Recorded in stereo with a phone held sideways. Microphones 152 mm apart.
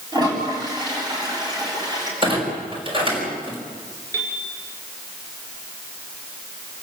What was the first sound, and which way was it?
A toilet flushing, 25° right (ahead or behind).